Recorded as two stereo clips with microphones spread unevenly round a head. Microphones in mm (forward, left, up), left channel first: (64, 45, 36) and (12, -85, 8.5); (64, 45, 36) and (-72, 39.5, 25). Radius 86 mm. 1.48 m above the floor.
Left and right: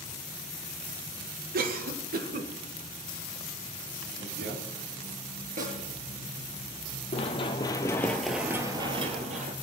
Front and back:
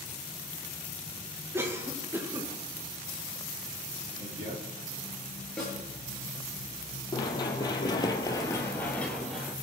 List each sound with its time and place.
1.5 s a cough: 105° right, 1.8 m
4.2 s a man speaking: 130° right, 4.5 m
5.6 s a snare drum: 80° right, 7 m
7.1 s running footsteps: 50° left, 2.5 m; by 9.5 s 85° right, 2 m